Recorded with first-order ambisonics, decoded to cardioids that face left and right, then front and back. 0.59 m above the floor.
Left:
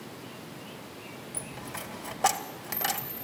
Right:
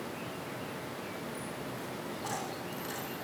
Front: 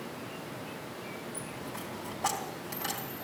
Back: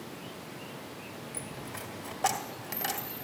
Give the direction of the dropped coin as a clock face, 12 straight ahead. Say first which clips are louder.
Even, front 1 dB; 8 o'clock.